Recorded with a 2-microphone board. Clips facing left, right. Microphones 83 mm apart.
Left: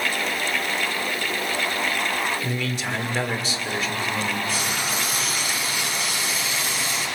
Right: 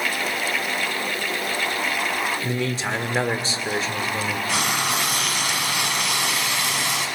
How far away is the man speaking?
About 1.5 m.